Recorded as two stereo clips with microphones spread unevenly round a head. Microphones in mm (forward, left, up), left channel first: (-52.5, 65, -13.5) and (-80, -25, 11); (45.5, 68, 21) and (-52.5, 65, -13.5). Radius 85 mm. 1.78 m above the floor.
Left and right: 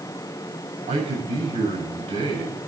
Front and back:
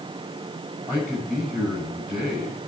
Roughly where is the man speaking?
Right.